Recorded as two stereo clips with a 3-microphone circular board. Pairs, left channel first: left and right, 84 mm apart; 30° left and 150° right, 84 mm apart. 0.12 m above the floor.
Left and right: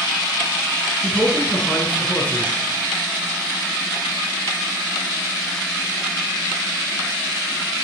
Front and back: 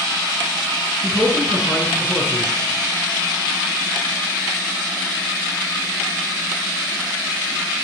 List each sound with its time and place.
1.0 s a man speaking: 140° left, 1.8 m